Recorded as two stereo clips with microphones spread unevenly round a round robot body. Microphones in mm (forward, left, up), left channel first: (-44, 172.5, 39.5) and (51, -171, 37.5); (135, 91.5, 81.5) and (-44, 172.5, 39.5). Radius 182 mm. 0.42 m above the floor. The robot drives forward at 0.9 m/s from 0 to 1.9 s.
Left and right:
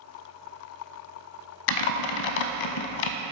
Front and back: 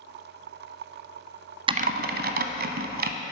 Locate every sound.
1.7 s typing on a keyboard: 80° left, 0.5 m; by 3.1 s 105° left, 0.5 m